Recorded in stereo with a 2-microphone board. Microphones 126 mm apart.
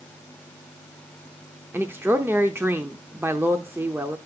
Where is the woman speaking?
15° right (ahead or behind), 0.7 m.